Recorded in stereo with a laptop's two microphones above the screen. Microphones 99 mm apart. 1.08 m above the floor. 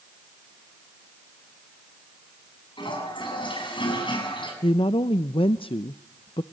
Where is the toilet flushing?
55° left (ahead or behind), 7 m.